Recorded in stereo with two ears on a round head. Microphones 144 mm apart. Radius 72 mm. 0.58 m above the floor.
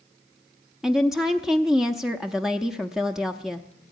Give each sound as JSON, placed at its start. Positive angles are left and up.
{"t": 0.8, "sound": "a woman speaking", "side_deg": -5, "distance_m": 0.6}